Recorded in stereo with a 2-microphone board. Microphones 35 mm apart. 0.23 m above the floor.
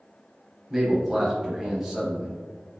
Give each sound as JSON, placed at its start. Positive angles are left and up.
{"t": 0.7, "sound": "a man speaking", "side_deg": -10, "distance_m": 0.9}